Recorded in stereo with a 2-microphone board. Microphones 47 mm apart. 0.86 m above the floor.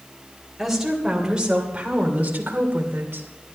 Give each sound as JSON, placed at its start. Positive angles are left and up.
{"t": 0.6, "sound": "a woman speaking", "side_deg": -5, "distance_m": 3.0}